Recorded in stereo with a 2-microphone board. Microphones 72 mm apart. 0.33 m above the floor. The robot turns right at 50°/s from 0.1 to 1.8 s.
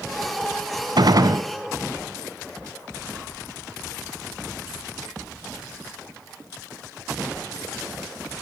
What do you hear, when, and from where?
1.0 s a gunshot: 75° right (ahead or behind), 0.5 m; by 1.4 s 50° right (ahead or behind), 0.5 m